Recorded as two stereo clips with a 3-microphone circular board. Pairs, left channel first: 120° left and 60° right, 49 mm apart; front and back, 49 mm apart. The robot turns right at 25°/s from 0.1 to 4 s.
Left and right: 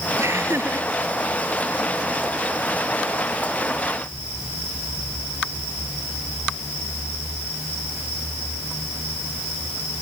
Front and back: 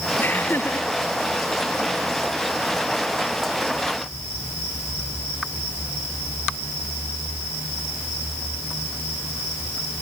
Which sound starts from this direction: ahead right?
Laughter, at 0.2 s.